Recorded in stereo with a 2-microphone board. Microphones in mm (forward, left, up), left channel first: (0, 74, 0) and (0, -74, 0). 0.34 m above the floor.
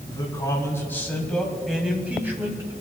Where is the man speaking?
25° left (ahead or behind), 2.5 m; by 2.7 s 20° right (ahead or behind), 2.5 m.